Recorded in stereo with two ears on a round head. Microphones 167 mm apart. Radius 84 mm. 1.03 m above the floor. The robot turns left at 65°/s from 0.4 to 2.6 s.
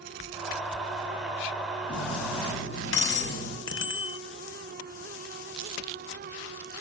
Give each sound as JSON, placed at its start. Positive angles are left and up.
{"t": 1.9, "sound": "cutlery clinking", "azimuth_deg": 115, "distance_m": 5.5}
{"t": 3.7, "sound": "a bicycle bell", "side_deg": 65, "distance_m": 3.0}